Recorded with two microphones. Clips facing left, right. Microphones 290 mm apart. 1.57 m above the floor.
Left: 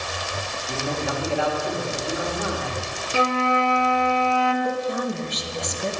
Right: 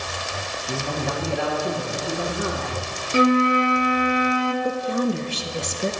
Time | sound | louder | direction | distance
0.7 | a man speaking | even | 45° right (ahead or behind) | 2 m
3.1 | a flute | right 6 dB | 20° right (ahead or behind) | 0.6 m
4.6 | a woman speaking | right 3 dB | 30° right (ahead or behind) | 0.7 m